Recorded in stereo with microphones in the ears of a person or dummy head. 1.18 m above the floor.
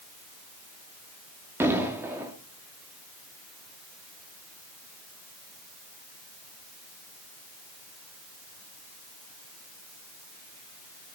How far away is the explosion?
About 2 m.